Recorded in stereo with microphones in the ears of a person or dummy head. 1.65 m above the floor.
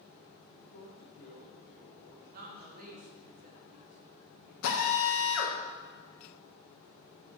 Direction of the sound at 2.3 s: 45° right (ahead or behind).